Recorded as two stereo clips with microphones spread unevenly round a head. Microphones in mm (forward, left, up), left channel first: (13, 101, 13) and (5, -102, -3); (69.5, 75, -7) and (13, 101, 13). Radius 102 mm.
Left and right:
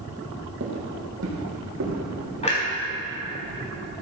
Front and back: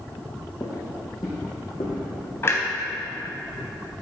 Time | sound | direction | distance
0.6 | footsteps | 80° right | 2.5 m
2.4 | a clunk | 35° left | 3.5 m